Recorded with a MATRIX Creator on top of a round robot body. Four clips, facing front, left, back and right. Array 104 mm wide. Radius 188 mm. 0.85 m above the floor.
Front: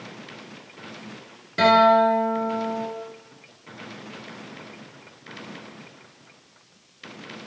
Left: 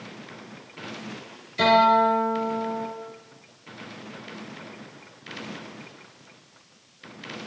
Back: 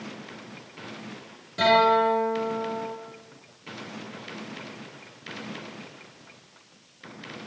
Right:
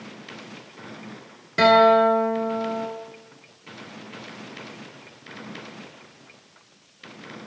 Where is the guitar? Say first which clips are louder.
Right 3 dB, front 4 dB; 65° right, 9 m.